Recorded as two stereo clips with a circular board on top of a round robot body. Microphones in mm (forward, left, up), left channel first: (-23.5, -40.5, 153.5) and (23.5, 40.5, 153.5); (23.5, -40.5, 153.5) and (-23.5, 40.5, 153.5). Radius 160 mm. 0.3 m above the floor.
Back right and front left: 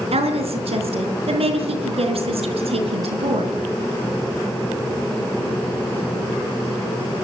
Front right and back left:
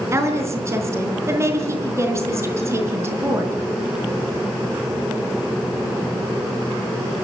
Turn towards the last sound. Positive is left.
turn(degrees=60)